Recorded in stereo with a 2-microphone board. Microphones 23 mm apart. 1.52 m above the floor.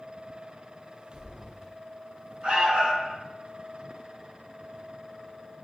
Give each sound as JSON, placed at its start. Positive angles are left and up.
{"t": 1.1, "sound": "footsteps", "side_deg": -10, "distance_m": 1.7}
{"t": 2.4, "sound": "an alarm", "side_deg": -70, "distance_m": 1.6}